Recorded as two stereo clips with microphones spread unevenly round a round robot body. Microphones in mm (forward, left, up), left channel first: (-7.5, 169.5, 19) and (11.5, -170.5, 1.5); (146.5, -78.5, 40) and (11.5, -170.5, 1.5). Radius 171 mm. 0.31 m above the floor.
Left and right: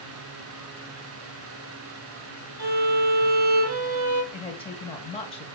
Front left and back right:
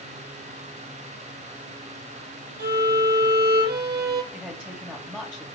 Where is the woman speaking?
160° left, 1.5 m.